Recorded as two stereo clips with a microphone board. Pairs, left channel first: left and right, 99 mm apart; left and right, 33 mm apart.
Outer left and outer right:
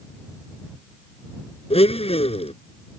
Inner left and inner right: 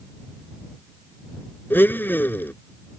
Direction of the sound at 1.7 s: 85° left.